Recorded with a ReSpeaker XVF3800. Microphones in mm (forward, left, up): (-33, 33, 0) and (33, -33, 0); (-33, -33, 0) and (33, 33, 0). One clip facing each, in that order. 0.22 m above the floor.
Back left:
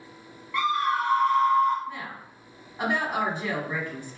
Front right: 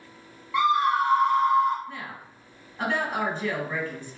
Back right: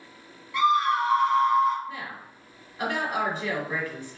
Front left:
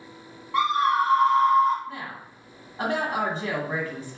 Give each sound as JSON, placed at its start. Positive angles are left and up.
{"t": 0.5, "sound": "a scream", "azimuth_deg": 20, "distance_m": 1.5}
{"t": 1.9, "sound": "a woman speaking", "azimuth_deg": 60, "distance_m": 1.9}